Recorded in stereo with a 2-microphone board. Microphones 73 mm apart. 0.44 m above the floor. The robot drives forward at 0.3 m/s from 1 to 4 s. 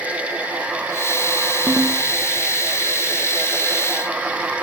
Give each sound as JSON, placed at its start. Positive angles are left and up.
{"t": 1.7, "sound": "a ringtone", "side_deg": -10, "distance_m": 0.6}